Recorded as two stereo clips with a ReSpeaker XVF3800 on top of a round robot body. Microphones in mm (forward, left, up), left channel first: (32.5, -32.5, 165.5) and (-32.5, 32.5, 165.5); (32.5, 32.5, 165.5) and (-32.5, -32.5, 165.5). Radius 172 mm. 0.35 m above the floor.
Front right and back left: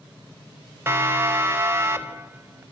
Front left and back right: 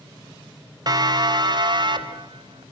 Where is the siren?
165° right, 3 m; by 2.6 s 160° right, 5 m.